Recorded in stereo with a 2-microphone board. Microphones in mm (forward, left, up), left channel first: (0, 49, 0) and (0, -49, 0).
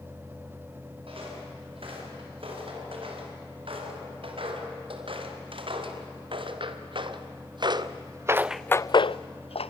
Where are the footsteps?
70° right (ahead or behind), 8.5 m; by 9.7 s 90° left, 1.2 m.